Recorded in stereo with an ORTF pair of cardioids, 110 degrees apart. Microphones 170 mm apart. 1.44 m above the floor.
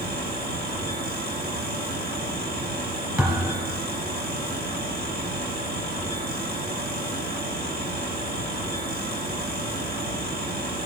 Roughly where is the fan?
Ahead right.